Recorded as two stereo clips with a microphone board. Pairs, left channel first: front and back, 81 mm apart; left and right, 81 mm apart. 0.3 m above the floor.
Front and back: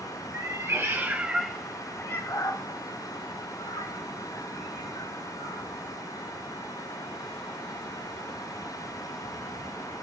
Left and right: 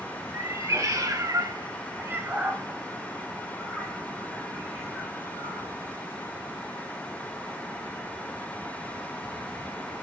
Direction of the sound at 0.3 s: 140° right.